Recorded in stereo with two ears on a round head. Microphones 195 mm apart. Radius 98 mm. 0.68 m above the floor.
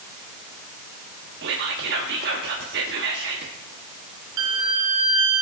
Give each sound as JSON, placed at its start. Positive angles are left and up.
{"t": 1.4, "sound": "whispering", "side_deg": -50, "distance_m": 1.0}
{"t": 4.4, "sound": "a violin", "side_deg": -70, "distance_m": 3.5}